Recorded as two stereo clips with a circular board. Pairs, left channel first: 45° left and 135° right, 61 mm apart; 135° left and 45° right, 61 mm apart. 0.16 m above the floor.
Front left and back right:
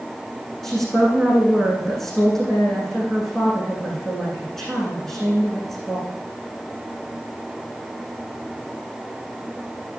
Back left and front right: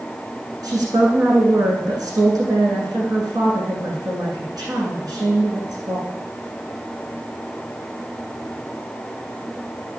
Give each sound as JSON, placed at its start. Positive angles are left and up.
{"t": 0.6, "sound": "a woman speaking", "azimuth_deg": -35, "distance_m": 8.5}